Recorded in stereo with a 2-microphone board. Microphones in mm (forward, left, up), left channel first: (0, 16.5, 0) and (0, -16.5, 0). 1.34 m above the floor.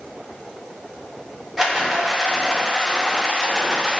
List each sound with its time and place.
1.6 s a rattle: centre (ahead or behind), 1.1 m